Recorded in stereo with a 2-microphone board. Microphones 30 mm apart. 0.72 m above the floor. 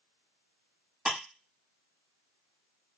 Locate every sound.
1.1 s ticking: 25° right (ahead or behind), 1.0 m